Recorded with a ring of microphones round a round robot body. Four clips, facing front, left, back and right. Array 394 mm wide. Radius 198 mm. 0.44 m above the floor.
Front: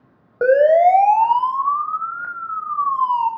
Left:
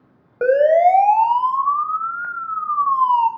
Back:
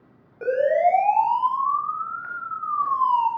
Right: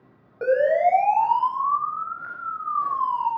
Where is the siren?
35° left, 2.5 m; by 3.3 s 85° left, 3 m.